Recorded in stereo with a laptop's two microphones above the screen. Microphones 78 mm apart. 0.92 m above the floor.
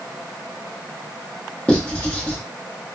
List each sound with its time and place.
1.7 s writing: 15° left (ahead or behind), 1.1 m